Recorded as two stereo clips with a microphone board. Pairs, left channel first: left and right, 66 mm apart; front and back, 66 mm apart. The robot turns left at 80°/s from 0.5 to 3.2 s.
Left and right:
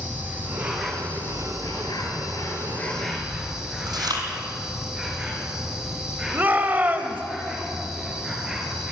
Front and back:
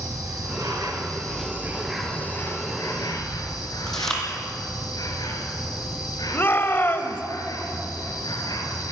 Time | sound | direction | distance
0.0 | an insect | 150° right | 3.5 m
3.9 | chewing | 85° right | 3 m
6.3 | a shout | 40° right | 1.4 m